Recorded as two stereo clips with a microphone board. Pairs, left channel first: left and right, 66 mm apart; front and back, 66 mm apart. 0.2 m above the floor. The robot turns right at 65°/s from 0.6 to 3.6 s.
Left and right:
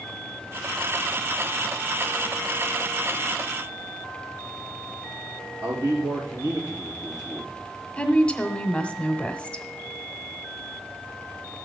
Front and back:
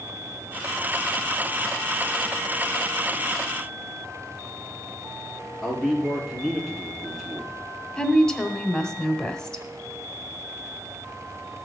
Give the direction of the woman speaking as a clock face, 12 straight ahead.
10 o'clock.